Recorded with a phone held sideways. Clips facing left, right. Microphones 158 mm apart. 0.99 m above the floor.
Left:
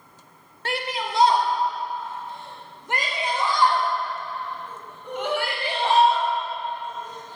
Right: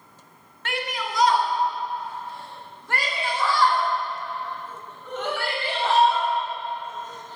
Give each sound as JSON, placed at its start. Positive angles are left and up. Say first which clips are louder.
{"t": 0.7, "sound": "a shout", "louder": "left 2 dB", "side_deg": 35, "distance_m": 1.9}